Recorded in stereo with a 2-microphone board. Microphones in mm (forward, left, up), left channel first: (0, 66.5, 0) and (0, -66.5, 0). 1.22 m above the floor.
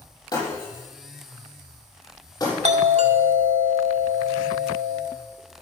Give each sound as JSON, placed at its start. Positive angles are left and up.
{"t": 0.3, "sound": "breaking glass", "side_deg": 30, "distance_m": 8.0}
{"t": 2.6, "sound": "a doorbell", "side_deg": -65, "distance_m": 1.9}